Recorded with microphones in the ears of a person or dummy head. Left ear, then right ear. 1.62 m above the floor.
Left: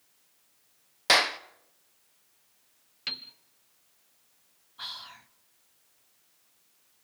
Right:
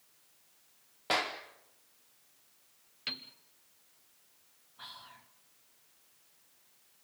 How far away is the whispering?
About 0.8 m.